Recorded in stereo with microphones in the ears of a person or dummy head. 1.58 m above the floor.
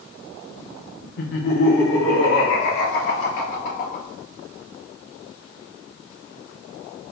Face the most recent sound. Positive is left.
turn(degrees=50)  # may be behind; listen again after turning